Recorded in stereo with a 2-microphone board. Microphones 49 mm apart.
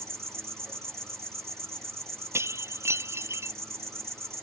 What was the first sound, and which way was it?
An insect, 60° right (ahead or behind).